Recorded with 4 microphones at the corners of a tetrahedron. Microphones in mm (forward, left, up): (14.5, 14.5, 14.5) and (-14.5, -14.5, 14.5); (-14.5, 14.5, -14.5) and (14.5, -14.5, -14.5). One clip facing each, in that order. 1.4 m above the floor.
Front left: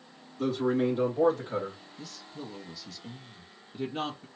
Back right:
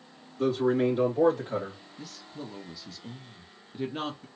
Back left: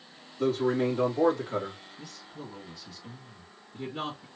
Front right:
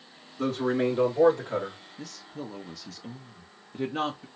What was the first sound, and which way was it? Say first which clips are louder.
A man speaking: back right 2 dB, even; 55° right.